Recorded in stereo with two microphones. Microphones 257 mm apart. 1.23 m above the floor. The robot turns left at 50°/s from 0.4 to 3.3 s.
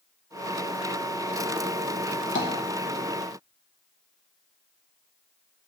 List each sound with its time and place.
2.4 s tapping: 45° left (ahead or behind), 1.0 m; by 2.5 s 50° left (ahead or behind), 1.0 m